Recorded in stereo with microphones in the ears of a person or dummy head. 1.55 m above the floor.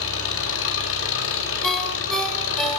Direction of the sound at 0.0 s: 80° left.